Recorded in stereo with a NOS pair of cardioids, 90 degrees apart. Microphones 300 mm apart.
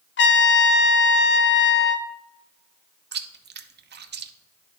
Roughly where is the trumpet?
Ahead left.